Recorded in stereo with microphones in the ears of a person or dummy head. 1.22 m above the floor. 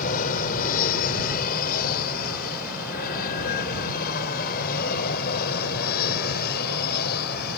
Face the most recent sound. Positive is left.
turn(degrees=55)  # may be behind; listen again after turning